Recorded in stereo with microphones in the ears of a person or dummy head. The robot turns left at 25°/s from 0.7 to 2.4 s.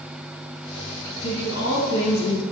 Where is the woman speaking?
75° left (ahead or behind), 1.0 m; by 2.4 s 70° left (ahead or behind), 1.0 m.